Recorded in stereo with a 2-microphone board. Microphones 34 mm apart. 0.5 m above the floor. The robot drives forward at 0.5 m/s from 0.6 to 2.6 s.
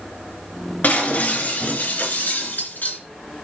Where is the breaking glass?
50° left (ahead or behind), 3.5 m; by 3.0 s 60° left (ahead or behind), 3 m.